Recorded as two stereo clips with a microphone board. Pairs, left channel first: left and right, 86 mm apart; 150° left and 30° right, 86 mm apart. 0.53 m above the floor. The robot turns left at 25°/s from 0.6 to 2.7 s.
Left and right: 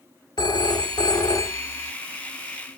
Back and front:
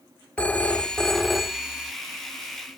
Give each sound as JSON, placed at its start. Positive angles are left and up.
{"t": 0.4, "sound": "a phone ringing", "azimuth_deg": 80, "distance_m": 0.7}